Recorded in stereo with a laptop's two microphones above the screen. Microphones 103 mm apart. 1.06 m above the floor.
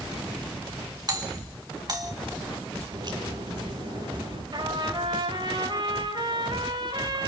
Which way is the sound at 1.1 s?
40° right (ahead or behind).